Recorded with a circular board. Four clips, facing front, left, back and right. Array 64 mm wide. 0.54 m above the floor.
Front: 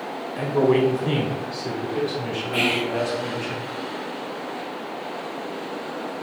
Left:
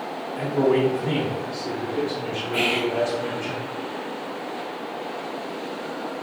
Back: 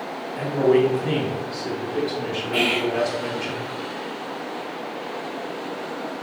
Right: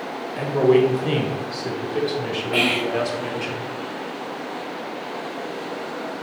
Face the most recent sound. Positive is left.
turn(degrees=-90)